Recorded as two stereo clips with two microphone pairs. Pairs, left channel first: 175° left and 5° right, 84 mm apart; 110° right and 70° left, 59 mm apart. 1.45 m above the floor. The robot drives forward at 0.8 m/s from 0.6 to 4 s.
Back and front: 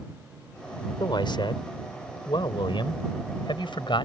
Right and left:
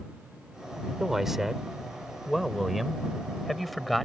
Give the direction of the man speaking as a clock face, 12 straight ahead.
7 o'clock.